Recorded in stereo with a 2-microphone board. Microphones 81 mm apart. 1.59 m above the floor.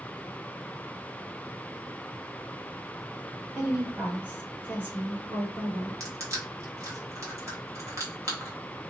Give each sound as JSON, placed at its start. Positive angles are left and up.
{"t": 3.5, "sound": "a woman speaking", "side_deg": -25, "distance_m": 1.7}
{"t": 6.0, "sound": "crushing", "side_deg": -40, "distance_m": 1.2}